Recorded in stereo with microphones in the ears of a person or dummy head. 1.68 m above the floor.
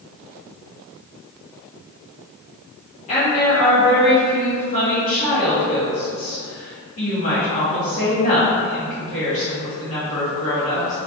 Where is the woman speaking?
35° left (ahead or behind), 0.8 m.